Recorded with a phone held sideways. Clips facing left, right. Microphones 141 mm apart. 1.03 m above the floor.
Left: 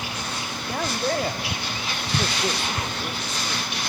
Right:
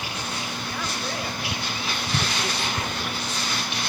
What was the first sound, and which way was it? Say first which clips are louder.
A man speaking: left 9 dB; 45° left (ahead or behind).